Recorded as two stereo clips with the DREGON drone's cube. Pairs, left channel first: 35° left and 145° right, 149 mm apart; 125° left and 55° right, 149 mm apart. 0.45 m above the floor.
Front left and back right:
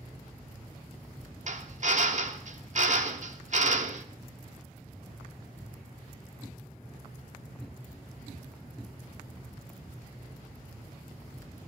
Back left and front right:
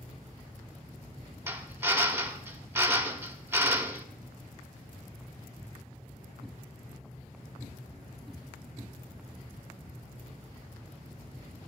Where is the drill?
130° right, 1.0 m.